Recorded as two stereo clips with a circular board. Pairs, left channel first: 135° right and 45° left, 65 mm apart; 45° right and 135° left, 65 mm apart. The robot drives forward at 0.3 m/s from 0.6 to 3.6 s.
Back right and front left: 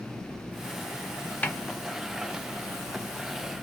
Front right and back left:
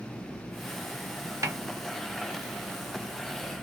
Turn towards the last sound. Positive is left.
turn(degrees=170)